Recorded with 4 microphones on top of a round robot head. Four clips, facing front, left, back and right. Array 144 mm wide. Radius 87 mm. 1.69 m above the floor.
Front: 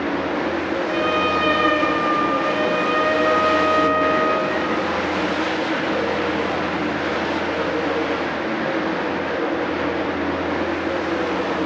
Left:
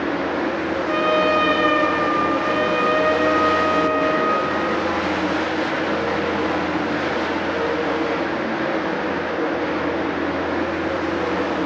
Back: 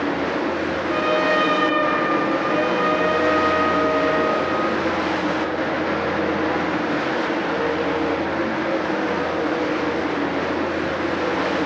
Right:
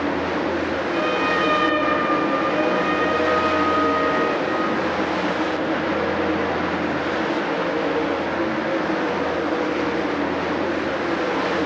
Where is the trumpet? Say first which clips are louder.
Left 6 dB, back 2 dB; 95° left, 3.5 m.